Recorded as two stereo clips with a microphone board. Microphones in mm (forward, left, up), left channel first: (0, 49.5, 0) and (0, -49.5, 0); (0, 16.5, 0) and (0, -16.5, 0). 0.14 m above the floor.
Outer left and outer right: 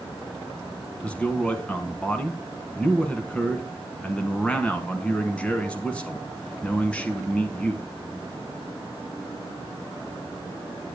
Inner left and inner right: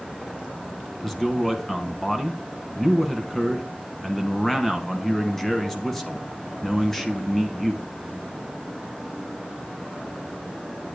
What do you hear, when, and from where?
1.0 s a man speaking: 10° left (ahead or behind), 1.1 m